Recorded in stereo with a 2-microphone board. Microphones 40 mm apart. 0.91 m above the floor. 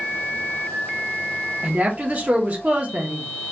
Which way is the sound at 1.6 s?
40° right (ahead or behind).